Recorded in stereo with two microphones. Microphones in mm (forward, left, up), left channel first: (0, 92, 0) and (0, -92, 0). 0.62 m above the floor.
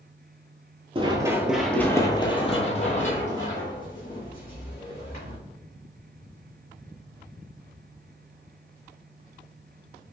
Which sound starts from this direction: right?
Running footsteps, at 0.9 s.